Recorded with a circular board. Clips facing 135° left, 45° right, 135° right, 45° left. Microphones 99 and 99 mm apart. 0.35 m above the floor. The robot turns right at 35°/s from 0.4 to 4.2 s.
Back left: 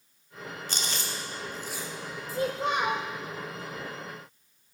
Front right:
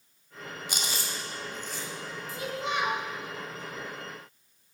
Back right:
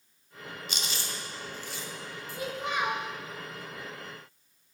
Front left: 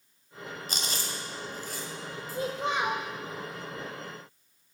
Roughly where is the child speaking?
Left.